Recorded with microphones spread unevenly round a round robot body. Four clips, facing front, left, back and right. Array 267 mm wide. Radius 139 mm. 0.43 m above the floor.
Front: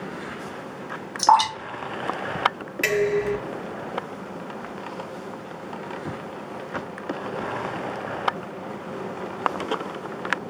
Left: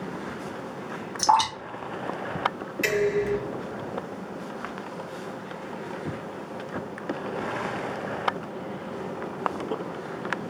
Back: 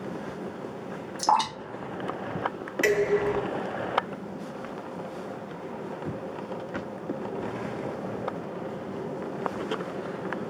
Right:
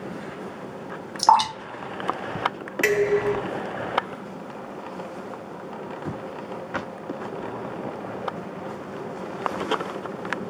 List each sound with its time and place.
1.2 s dripping: 55° right, 1.7 m
2.8 s dishes clattering: 85° right, 2.5 m